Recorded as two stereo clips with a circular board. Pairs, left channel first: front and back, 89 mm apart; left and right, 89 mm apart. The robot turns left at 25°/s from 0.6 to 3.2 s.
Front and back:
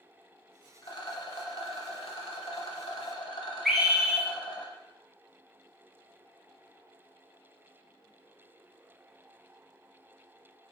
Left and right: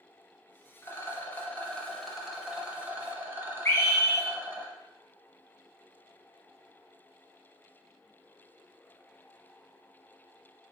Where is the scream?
95° left, 0.7 m.